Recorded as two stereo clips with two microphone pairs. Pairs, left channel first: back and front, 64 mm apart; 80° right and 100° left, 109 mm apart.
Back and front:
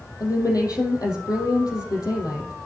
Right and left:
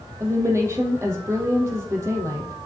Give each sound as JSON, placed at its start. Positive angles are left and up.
{"t": 0.2, "sound": "a woman speaking", "azimuth_deg": 170, "distance_m": 3.5}